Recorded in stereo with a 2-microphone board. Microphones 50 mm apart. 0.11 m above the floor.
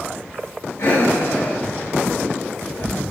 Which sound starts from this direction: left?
Breathing, at 0.8 s.